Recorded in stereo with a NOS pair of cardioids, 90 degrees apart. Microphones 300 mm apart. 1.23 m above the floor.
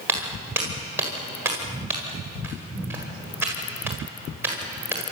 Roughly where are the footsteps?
Ahead.